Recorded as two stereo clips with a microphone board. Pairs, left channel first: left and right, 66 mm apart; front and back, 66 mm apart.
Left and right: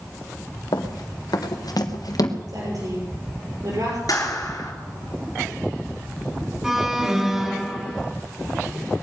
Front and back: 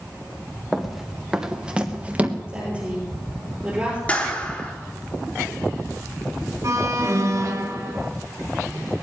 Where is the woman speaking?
110° right, 6 m.